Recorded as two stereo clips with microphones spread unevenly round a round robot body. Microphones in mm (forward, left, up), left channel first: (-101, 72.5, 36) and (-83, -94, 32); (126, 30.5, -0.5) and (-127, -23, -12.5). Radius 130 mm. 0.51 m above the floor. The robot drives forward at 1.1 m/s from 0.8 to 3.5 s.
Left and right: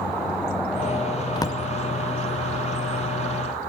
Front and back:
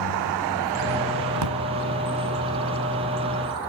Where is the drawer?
165° left, 0.6 m; by 1.6 s 170° left, 0.9 m.